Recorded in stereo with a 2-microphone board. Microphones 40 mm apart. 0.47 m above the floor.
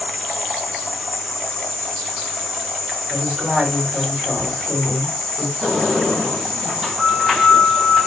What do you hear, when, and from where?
0.0 s an insect: 5° left (ahead or behind), 1.6 m
3.1 s a woman speaking: 20° right (ahead or behind), 3 m
5.6 s a sliding door: 10° right (ahead or behind), 2.5 m